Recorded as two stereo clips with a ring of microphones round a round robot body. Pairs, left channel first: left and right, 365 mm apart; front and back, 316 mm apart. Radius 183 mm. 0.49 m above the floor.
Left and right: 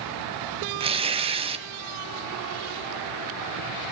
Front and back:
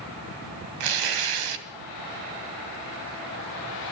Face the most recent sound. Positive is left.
turn(degrees=-165)